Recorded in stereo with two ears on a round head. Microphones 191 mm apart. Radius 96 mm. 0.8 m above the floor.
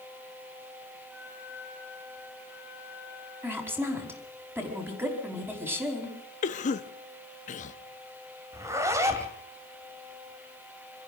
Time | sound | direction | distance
1.1 | a flute | 80° right | 9.5 m
3.4 | a woman speaking | 10° right (ahead or behind) | 5 m
6.4 | a cough | 35° left (ahead or behind) | 1.1 m
8.5 | a zipper | 15° right (ahead or behind) | 2 m